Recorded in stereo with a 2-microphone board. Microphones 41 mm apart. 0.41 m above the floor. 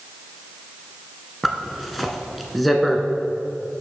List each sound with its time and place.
1.4 s a zipper: centre (ahead or behind), 1.0 m